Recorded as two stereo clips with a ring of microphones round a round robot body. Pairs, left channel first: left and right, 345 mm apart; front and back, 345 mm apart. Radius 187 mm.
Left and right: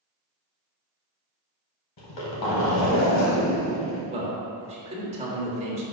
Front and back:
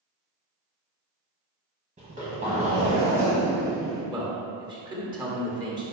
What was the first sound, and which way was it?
A zipper, 110° left.